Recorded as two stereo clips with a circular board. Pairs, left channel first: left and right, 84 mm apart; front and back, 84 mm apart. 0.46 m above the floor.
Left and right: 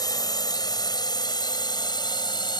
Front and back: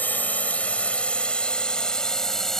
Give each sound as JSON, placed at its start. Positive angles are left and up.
{"t": 0.0, "sound": "a drone", "azimuth_deg": 65}